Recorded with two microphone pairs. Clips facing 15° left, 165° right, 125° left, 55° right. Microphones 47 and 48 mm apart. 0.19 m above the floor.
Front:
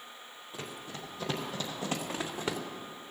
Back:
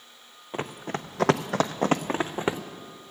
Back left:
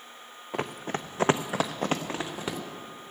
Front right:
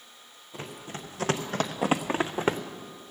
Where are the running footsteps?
155° left, 0.9 m; by 2.6 s 105° right, 1.0 m.